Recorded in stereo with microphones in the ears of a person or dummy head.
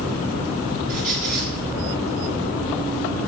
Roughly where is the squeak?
Right.